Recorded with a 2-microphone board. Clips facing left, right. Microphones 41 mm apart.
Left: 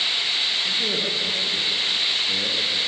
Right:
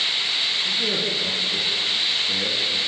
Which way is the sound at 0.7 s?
Centre (ahead or behind).